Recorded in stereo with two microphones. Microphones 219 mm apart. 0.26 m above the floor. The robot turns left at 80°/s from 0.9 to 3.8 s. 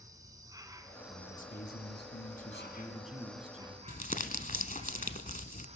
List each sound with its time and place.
0.0 s an insect: 160° right, 2 m; by 5.8 s 35° right, 2 m
1.1 s a man speaking: 155° left, 2.5 m; by 3.8 s 60° right, 2.5 m
3.9 s crumpling: 40° left (ahead or behind), 0.9 m